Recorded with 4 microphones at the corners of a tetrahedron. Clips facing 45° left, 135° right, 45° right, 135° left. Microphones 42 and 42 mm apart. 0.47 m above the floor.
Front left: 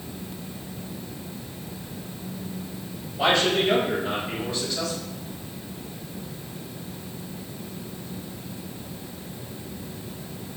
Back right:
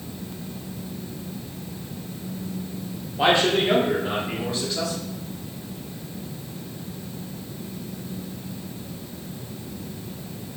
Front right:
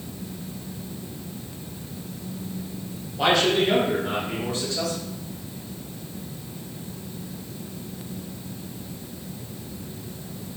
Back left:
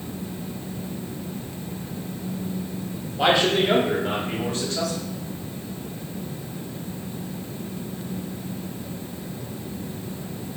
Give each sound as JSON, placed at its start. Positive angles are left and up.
{"t": 3.2, "sound": "a man speaking", "azimuth_deg": -145, "distance_m": 1.1}